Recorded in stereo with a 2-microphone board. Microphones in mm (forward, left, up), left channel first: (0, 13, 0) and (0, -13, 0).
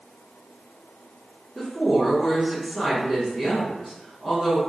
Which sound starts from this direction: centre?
A woman speaking, at 1.6 s.